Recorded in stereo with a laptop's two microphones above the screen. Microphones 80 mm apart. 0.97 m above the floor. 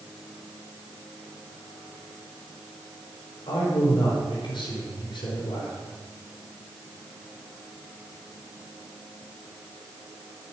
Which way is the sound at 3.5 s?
80° left.